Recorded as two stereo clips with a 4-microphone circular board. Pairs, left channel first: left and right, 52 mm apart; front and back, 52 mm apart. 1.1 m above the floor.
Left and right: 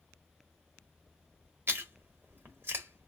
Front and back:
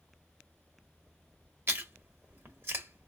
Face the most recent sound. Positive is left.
turn(degrees=-135)